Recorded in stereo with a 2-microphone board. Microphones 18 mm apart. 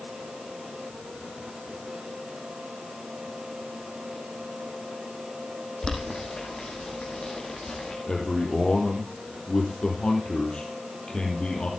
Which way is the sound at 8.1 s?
65° left (ahead or behind).